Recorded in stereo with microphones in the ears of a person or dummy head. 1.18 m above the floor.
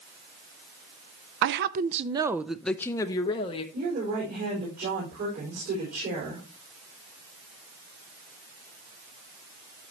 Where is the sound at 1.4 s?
60° right (ahead or behind), 0.6 m; by 3.6 s 30° left (ahead or behind), 1.0 m.